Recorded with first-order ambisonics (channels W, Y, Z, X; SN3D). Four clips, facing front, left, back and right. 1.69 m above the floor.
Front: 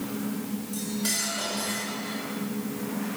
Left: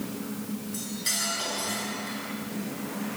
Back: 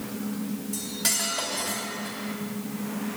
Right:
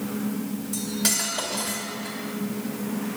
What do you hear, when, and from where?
0.7 s cutlery clinking: 110° right, 4 m